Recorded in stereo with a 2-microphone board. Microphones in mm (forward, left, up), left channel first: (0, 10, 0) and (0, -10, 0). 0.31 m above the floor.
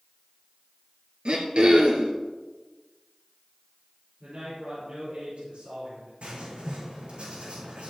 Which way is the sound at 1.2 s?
65° right (ahead or behind).